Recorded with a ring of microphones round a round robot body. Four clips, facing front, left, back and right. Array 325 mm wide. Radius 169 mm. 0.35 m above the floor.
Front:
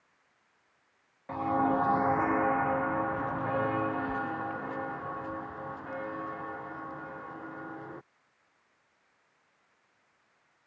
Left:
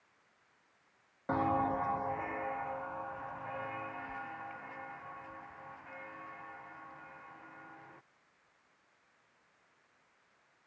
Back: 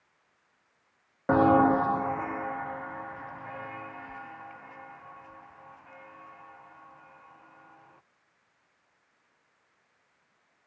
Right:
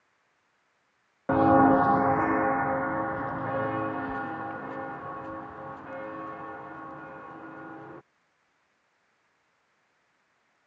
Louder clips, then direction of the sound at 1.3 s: Right 13 dB, back 7 dB; 150° right.